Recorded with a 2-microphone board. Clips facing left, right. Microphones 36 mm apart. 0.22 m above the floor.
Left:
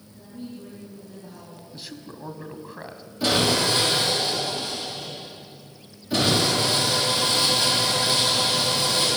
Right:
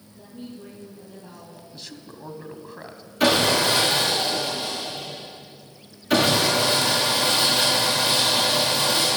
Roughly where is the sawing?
Right.